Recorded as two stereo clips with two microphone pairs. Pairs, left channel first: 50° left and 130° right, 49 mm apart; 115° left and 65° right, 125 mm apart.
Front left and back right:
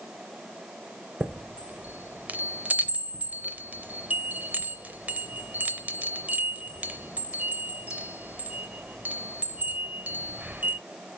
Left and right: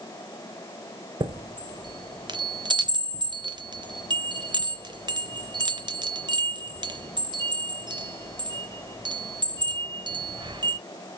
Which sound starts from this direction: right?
A chime, at 1.2 s.